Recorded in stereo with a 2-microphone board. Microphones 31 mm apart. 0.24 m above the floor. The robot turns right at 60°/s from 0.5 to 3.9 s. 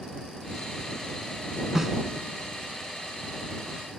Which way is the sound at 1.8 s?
20° right (ahead or behind).